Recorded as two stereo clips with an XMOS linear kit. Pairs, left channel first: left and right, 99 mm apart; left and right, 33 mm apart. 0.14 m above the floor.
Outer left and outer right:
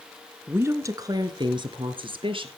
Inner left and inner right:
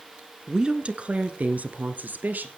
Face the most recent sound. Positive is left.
turn(degrees=-65)  # may be behind; listen again after turning